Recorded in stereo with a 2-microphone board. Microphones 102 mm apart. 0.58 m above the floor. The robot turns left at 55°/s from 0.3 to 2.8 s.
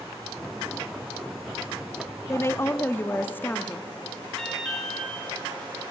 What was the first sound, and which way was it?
A woman speaking, 30° left (ahead or behind).